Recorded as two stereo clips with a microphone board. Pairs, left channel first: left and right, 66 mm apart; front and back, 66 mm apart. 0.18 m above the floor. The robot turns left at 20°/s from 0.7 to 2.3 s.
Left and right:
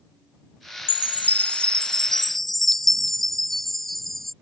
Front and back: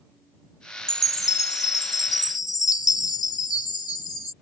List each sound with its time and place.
0.9 s a chime: 30° left; by 4.3 s 5° left